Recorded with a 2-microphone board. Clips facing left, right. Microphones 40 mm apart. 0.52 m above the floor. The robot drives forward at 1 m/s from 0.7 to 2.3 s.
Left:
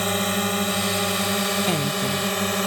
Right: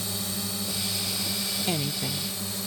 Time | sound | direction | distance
0.0 | a drone | 55° left (ahead or behind) | ?
1.7 | a woman speaking | 15° left (ahead or behind) | ?